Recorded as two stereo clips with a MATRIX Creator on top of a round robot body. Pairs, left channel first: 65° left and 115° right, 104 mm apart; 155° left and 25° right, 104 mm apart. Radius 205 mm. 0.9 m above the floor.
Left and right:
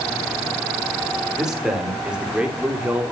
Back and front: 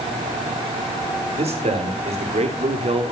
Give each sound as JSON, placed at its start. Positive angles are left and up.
{"t": 1.4, "sound": "a man speaking", "azimuth_deg": -25, "distance_m": 4.5}